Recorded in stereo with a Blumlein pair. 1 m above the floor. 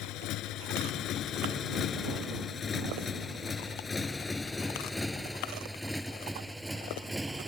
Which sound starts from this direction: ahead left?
A motorcycle, at 0.0 s.